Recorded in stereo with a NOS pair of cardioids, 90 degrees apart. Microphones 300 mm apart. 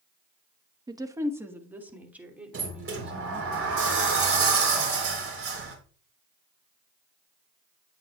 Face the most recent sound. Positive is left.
turn(degrees=-45)